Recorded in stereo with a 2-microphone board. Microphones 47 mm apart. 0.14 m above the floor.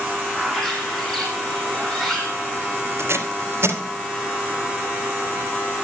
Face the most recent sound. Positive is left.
turn(degrees=-60)  # may be behind; listen again after turning